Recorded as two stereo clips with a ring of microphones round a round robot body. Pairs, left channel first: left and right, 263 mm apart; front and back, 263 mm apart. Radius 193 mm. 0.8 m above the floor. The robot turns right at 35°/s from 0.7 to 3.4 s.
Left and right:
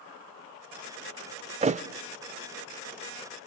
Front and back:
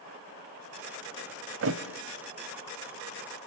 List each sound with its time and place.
1.6 s a thud: 150° right, 0.7 m; by 1.8 s 140° right, 0.7 m